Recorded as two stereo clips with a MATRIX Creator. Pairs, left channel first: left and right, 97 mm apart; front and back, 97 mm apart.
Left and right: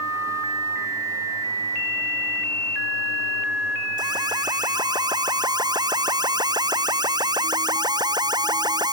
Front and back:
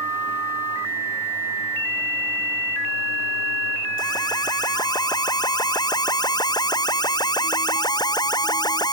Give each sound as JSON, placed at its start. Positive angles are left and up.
{"t": 4.0, "sound": "an alarm", "azimuth_deg": -45}